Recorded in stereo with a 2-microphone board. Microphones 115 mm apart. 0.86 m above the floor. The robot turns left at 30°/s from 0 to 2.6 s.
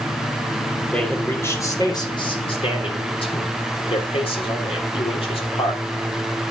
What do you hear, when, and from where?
0.9 s a man speaking: 170° left, 3 m; by 5.8 s 120° left, 3 m